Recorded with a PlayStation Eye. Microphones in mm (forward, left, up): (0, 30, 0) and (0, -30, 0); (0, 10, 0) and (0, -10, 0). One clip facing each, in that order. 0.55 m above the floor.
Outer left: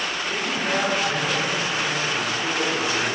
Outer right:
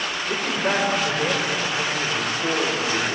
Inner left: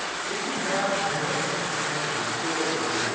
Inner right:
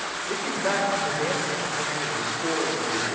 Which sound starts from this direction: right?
A man speaking, at 0.3 s.